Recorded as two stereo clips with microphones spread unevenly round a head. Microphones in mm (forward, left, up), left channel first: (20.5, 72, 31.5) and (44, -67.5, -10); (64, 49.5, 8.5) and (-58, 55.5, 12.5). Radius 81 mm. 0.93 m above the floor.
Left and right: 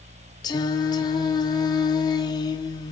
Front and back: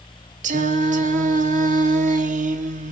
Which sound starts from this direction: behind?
Singing, at 0.4 s.